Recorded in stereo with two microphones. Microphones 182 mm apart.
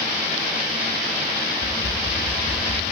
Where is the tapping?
5° left (ahead or behind), 1.8 m.